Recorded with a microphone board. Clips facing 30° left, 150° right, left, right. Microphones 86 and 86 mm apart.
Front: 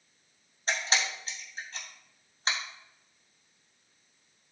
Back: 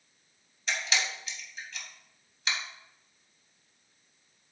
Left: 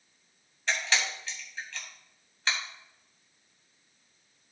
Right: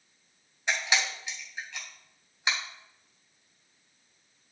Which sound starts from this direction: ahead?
A camera shutter, at 0.7 s.